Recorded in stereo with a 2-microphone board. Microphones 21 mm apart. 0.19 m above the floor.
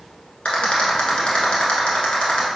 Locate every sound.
0.5 s a rattle: 65° left (ahead or behind), 0.9 m